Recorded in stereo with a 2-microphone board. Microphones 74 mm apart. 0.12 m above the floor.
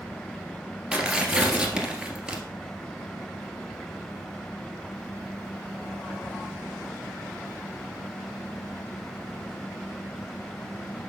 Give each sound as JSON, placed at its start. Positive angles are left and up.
{"t": 0.9, "sound": "tearing paper", "side_deg": -10, "distance_m": 1.4}